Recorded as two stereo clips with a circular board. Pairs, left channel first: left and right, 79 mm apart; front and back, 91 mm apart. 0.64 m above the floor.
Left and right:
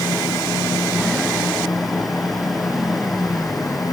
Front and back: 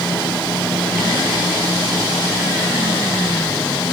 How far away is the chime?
No chime in this recording.